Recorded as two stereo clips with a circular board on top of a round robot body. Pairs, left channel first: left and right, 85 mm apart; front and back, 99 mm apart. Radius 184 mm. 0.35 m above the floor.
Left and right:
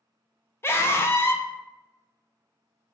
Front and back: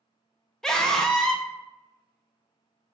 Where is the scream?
80° left, 0.8 m.